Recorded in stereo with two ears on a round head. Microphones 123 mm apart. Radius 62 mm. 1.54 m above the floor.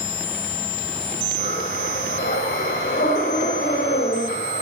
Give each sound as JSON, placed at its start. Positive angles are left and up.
{"t": 1.4, "sound": "breathing", "side_deg": 75, "distance_m": 6.0}